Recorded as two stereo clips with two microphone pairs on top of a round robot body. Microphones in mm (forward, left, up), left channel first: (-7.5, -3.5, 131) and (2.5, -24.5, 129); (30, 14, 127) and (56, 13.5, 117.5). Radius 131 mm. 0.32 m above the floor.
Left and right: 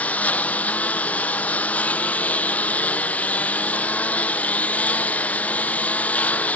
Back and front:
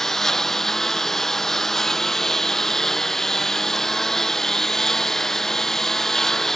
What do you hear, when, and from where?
0.0 s a lawn mower: 100° left